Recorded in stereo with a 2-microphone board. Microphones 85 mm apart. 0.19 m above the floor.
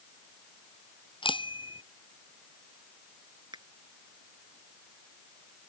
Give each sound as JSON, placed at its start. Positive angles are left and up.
{"t": 1.2, "sound": "a bicycle bell", "side_deg": 80}
{"t": 3.5, "sound": "a finger snap", "side_deg": -60}